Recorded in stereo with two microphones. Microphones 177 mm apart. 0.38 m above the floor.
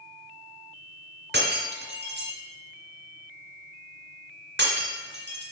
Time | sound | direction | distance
1.3 | breaking glass | 75° right (ahead or behind) | 2.0 m